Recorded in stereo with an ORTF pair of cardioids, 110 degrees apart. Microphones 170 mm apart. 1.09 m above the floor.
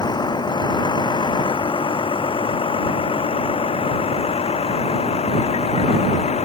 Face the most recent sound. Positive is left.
turn(degrees=40)